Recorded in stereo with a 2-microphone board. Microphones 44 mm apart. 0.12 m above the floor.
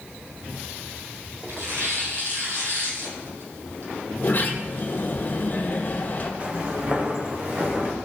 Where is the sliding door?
40° left (ahead or behind), 2.5 m.